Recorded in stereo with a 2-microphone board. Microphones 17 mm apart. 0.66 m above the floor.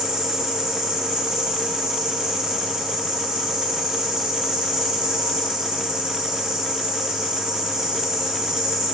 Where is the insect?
70° right (ahead or behind), 1.8 m.